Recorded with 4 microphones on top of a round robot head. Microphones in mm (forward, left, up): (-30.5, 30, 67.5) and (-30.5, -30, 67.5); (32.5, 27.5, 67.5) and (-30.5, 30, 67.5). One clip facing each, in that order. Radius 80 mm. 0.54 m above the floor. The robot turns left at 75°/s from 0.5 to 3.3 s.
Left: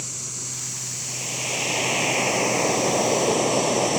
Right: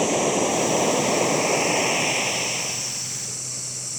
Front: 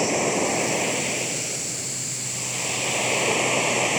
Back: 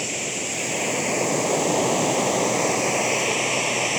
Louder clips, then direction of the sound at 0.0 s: Right 20 dB, front 7 dB; 65° right.